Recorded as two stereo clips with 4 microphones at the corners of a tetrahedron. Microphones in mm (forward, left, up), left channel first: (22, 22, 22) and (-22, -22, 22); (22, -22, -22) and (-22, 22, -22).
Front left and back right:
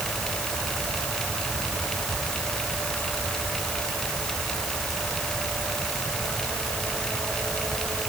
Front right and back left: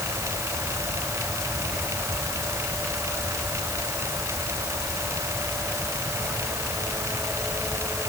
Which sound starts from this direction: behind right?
Whispering, at 1.7 s.